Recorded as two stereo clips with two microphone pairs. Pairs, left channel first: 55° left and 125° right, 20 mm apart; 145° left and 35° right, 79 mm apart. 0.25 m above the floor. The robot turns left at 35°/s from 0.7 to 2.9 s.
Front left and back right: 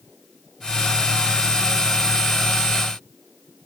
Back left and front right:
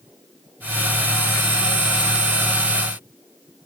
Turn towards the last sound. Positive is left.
No sound to turn to.